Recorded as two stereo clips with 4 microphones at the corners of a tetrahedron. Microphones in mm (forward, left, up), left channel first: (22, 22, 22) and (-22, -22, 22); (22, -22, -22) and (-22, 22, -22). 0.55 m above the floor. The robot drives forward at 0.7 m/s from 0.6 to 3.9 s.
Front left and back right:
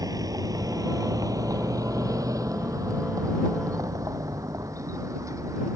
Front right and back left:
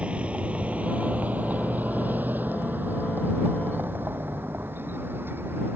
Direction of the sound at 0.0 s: 155° right.